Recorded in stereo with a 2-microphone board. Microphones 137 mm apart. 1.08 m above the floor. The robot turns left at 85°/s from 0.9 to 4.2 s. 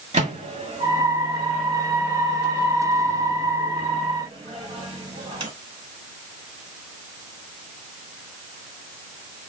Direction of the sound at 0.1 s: 60° right (ahead or behind).